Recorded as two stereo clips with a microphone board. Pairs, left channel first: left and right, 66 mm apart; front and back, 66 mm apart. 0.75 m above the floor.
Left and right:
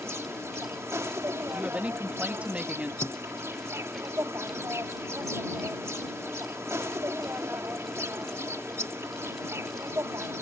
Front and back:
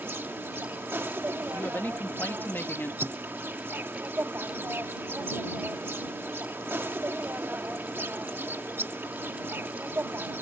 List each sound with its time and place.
0.0 s an insect: 125° right
1.5 s a woman speaking: 35° right
3.0 s a thud: 135° left